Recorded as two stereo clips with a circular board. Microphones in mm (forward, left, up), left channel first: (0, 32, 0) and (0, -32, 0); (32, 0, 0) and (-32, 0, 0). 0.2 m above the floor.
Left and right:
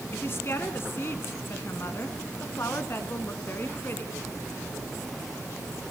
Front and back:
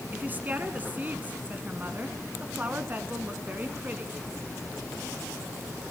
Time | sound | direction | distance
0.1 | a woman speaking | 125° left | 1.9 m